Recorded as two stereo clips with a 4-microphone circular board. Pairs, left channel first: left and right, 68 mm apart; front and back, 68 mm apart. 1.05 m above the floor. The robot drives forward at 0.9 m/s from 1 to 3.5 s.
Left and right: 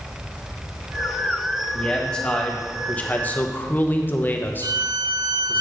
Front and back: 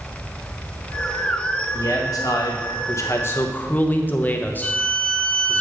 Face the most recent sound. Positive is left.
turn(degrees=-75)